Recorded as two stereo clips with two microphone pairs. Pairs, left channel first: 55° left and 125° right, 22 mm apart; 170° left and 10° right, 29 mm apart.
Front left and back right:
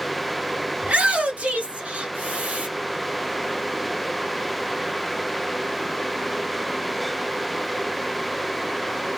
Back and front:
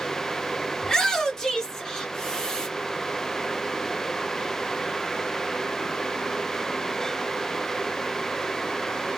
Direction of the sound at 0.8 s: 120° right.